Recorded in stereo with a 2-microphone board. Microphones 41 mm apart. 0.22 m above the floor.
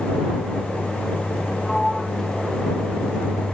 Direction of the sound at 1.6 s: Centre (ahead or behind).